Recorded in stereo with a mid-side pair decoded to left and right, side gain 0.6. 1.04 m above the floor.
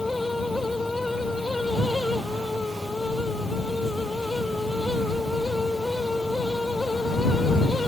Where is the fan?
10° left.